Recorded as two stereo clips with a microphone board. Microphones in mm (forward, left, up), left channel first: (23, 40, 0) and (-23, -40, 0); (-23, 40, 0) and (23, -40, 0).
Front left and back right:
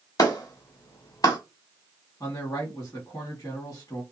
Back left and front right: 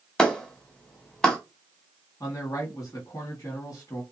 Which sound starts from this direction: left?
A man speaking, at 2.2 s.